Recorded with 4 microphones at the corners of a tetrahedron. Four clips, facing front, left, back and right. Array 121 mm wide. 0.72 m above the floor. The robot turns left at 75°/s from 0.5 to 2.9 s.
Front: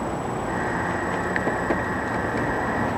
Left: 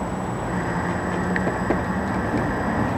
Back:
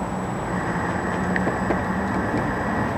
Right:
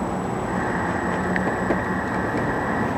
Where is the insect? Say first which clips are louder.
Right 2 dB, even; 90° right, 2.5 m; by 3.0 s 90° left, 2.5 m.